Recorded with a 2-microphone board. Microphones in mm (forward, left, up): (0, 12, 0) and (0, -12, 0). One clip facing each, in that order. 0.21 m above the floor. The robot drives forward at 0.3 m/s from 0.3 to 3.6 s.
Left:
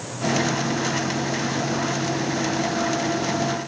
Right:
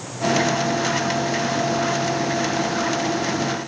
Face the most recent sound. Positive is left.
No sound to turn to.